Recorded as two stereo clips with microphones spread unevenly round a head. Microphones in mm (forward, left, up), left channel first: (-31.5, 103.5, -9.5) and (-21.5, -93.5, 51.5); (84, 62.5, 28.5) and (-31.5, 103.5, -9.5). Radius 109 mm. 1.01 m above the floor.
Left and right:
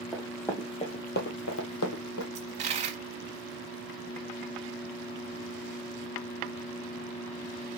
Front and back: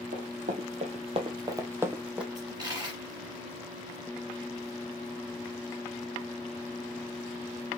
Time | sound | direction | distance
0.1 | running footsteps | 165° right | 1.6 m
2.4 | a dropped coin | 120° right | 1.4 m